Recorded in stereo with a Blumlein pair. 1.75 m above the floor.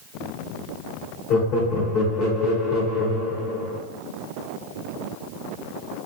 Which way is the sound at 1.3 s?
35° left.